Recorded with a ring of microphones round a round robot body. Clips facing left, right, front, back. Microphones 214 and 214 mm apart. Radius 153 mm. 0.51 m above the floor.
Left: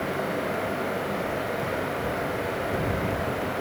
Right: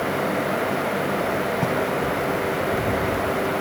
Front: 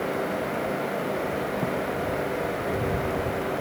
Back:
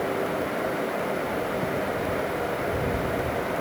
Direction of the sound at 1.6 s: 80° right.